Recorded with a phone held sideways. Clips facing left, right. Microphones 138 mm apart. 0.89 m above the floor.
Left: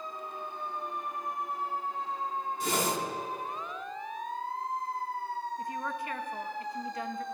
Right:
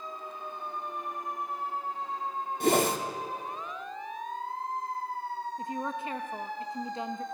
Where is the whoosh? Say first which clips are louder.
Right 7 dB; 55° right (ahead or behind), 1.6 m.